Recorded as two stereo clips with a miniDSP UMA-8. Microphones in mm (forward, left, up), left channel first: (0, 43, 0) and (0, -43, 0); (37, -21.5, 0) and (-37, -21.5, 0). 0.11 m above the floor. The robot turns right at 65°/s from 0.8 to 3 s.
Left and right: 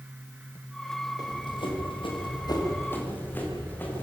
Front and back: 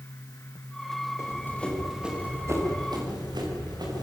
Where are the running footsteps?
50° left, 7 m; by 4.0 s 155° left, 10 m.